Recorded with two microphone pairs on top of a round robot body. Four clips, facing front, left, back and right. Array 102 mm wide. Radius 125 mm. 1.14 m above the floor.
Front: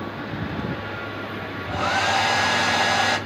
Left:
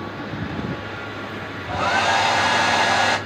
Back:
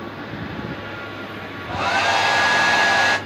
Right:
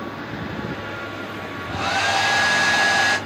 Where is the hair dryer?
155° left, 0.8 m.